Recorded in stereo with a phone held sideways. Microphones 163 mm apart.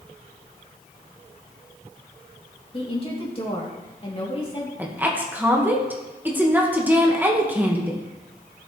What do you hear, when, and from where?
2.7 s a woman speaking: 35° left (ahead or behind), 2.5 m
4.8 s a woman speaking: 10° right (ahead or behind), 1.4 m